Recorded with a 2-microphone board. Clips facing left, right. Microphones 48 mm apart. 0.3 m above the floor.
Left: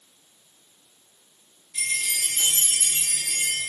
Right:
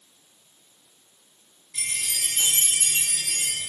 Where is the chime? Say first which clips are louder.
Left 4 dB; 65° right (ahead or behind), 3.5 m.